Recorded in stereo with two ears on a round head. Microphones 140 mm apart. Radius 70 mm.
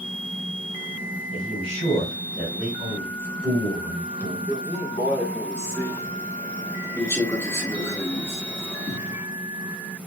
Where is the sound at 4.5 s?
15° left (ahead or behind), 0.9 m.